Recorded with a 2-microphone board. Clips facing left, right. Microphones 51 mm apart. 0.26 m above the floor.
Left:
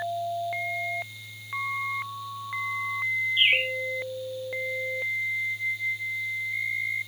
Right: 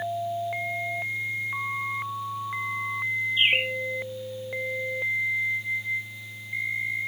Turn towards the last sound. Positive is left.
turn(degrees=65)  # may be behind; listen again after turning